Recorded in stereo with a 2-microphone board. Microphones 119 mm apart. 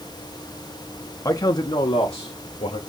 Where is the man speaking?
25° left (ahead or behind), 0.6 m; by 2.8 s 55° left (ahead or behind), 1.1 m.